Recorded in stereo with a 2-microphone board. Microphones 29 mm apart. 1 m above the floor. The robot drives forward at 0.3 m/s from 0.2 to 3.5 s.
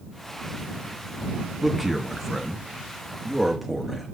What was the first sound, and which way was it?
A man speaking, 10° right (ahead or behind).